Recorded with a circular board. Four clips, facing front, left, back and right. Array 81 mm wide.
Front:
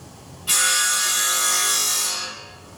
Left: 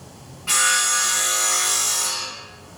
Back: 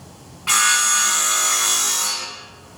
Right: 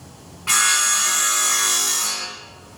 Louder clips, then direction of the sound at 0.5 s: Even, back 4 dB; 155° right.